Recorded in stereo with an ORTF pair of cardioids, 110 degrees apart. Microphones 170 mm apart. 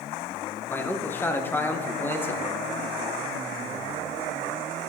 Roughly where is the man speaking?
Ahead.